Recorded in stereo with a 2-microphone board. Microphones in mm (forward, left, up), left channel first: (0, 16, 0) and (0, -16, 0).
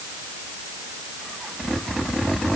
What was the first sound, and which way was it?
Only background noise.